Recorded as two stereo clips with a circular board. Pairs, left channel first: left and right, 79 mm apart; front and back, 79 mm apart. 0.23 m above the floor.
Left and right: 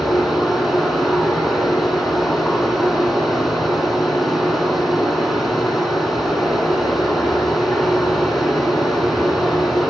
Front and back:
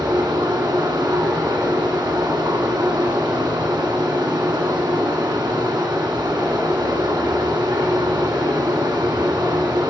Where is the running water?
Straight behind, 1.7 m.